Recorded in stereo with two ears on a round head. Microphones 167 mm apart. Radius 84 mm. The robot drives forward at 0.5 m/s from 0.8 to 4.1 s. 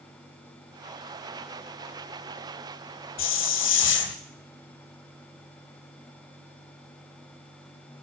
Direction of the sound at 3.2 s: 80° left.